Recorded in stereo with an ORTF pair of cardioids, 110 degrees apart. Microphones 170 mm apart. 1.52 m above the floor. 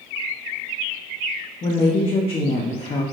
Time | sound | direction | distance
1.6 | a woman speaking | 30° left | 0.7 m